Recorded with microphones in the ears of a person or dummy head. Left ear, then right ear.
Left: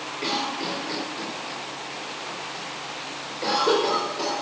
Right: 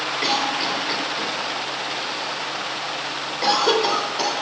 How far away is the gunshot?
I don't hear a gunshot.